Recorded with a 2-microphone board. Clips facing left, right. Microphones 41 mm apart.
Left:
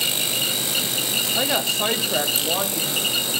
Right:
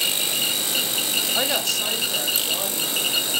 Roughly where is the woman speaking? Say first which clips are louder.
Left 3 dB; centre.